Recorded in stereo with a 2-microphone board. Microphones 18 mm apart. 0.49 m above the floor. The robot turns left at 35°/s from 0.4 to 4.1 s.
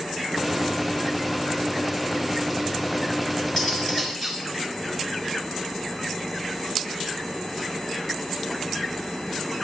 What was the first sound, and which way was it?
Cutlery clinking, 35° left (ahead or behind).